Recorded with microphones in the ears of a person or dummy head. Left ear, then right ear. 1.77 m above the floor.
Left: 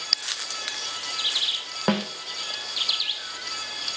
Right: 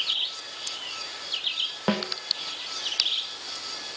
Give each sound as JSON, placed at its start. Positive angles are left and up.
{"t": 1.9, "sound": "a snare drum", "side_deg": 5, "distance_m": 1.4}